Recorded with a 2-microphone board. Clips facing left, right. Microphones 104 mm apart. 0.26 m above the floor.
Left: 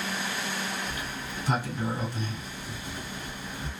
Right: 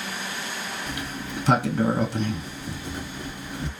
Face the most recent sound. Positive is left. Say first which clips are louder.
# right 3 dB
turn(degrees=-85)